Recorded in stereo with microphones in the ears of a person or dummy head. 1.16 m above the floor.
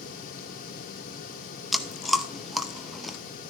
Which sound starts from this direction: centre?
Chewing, at 1.7 s.